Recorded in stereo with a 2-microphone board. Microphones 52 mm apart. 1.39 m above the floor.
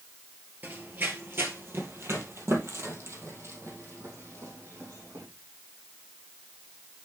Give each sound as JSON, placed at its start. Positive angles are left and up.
{"t": 0.6, "sound": "running footsteps", "side_deg": -40, "distance_m": 1.8}